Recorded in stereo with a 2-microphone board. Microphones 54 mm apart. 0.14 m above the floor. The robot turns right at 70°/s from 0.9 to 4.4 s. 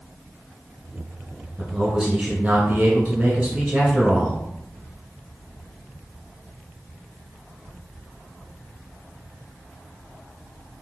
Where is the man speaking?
165° right, 1.1 m; by 4.4 s 30° left, 1.1 m.